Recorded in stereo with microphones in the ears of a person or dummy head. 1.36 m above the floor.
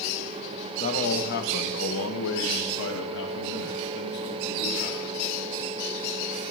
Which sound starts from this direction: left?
A man speaking, at 0.8 s.